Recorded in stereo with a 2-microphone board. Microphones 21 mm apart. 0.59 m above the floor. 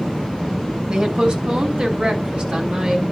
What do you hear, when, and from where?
0.9 s a woman speaking: 45° right (ahead or behind), 4.5 m; by 3.0 s 50° right (ahead or behind), 6.5 m